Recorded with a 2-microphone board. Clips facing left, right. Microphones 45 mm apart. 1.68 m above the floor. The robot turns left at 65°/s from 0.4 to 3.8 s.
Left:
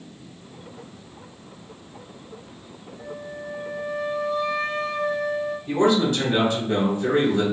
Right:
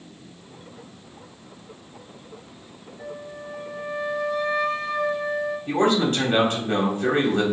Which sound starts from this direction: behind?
A flute, at 3.0 s.